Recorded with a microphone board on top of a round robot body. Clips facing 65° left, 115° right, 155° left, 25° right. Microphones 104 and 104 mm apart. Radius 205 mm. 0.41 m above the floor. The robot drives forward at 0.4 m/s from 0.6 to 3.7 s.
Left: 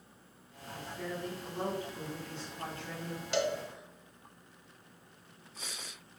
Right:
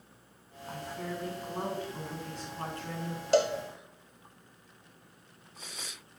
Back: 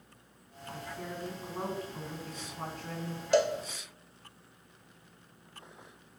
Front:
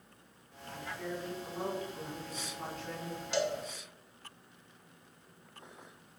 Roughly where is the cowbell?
Behind.